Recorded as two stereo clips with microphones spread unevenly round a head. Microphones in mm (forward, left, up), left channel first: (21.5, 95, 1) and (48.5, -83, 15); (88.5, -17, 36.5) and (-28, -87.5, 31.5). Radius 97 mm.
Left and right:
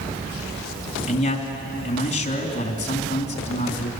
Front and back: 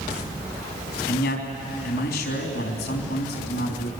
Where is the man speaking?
45° left, 3.5 m.